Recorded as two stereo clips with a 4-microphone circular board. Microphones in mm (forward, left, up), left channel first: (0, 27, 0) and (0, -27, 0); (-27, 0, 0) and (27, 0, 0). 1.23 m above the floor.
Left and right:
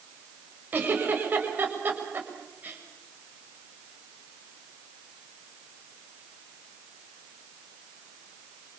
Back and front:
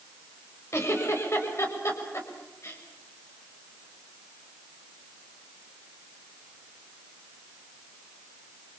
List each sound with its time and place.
0.7 s a giggle: 145° right, 6.5 m